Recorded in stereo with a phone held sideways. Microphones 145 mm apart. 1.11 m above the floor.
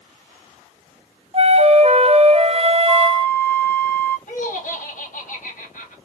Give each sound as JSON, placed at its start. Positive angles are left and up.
{"t": 1.3, "sound": "a flute", "side_deg": -40, "distance_m": 0.5}
{"t": 2.9, "sound": "a flute", "side_deg": 10, "distance_m": 1.3}
{"t": 4.3, "sound": "laughter", "side_deg": 60, "distance_m": 1.7}